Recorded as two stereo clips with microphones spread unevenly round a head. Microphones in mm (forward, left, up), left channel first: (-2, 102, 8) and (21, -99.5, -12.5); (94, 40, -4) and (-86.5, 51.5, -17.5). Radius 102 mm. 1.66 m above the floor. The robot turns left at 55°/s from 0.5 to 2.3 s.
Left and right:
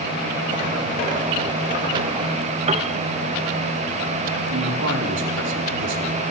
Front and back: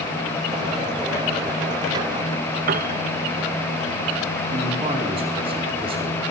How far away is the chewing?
I don't hear chewing.